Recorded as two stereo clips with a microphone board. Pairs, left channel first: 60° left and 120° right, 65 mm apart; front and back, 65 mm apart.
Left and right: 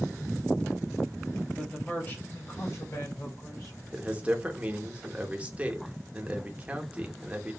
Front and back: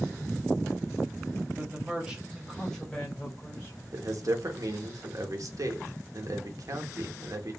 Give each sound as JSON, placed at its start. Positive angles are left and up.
{"t": 1.6, "sound": "a man speaking", "azimuth_deg": 135, "distance_m": 1.0}
{"t": 3.9, "sound": "a man speaking", "azimuth_deg": 170, "distance_m": 0.6}